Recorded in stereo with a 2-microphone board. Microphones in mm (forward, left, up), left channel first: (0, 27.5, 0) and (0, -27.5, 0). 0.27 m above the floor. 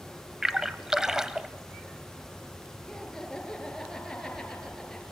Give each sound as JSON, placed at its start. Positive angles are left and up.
{"t": 0.4, "sound": "a splash", "side_deg": -10, "distance_m": 0.9}
{"t": 2.9, "sound": "laughter", "side_deg": 10, "distance_m": 5.5}